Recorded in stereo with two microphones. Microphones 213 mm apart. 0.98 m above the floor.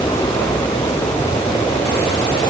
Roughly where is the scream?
No scream in this recording.